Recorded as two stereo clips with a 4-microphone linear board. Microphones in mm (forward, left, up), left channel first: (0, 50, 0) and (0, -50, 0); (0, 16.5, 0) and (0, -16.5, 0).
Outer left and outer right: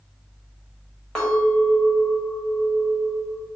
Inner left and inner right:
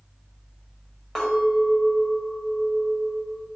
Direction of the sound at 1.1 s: 10° left (ahead or behind).